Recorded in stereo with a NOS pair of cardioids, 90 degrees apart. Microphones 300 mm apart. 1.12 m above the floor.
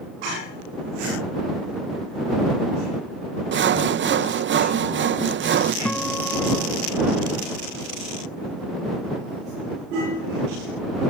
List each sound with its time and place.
3.5 s sawing: 40° right
5.8 s a guitar: 5° left